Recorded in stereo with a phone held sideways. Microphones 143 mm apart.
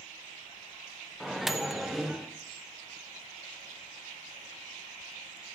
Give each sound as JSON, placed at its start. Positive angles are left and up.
{"t": 1.2, "sound": "a microwave", "side_deg": 0, "distance_m": 0.6}